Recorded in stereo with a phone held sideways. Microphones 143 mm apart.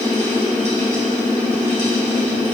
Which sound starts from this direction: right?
A fan, at 0.0 s.